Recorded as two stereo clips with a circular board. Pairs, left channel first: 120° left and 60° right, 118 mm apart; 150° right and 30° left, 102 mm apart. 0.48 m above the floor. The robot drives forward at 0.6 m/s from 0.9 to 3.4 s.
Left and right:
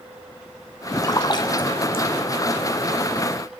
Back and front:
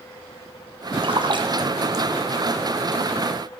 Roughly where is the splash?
Ahead left.